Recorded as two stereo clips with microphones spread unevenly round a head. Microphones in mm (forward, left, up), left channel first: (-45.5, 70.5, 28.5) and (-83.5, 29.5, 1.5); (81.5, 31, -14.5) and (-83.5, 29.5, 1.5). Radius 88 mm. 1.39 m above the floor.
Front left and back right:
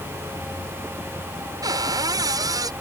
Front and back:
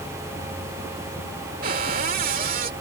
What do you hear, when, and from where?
1.6 s a cupboard door: 135° right